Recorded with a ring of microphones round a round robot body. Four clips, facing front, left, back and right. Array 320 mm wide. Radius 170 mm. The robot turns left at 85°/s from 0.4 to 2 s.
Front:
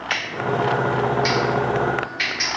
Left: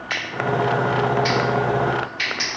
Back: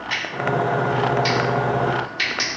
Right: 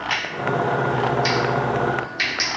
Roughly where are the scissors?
Ahead.